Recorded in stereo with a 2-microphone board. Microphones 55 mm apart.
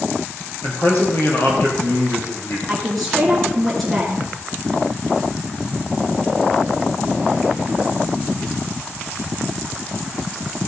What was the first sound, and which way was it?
A man speaking, 60° left (ahead or behind).